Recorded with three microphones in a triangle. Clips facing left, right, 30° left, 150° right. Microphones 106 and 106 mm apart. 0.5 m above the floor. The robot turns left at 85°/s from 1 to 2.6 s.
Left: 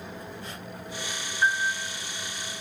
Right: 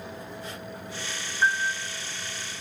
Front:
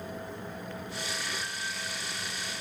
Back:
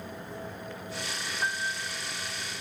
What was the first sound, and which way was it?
A piano, 170° right.